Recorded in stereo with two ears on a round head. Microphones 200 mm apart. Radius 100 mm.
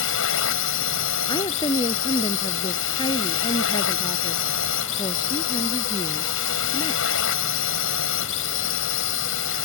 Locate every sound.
0.0 s a drone: 65° left (ahead or behind)
1.3 s a woman speaking: 20° left (ahead or behind)